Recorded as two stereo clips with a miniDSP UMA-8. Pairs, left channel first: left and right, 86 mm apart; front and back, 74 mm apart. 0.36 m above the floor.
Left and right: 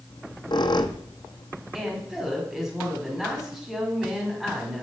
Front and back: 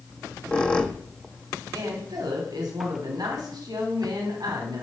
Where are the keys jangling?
I don't hear keys jangling.